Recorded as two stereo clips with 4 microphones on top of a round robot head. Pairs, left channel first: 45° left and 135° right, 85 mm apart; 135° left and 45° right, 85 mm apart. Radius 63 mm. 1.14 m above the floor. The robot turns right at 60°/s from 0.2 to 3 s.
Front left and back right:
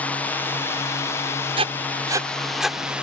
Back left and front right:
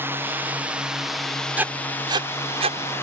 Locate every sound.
0.0 s a drone: 10° right; by 3.0 s 155° left
1.6 s writing: 115° right; by 3.0 s 30° right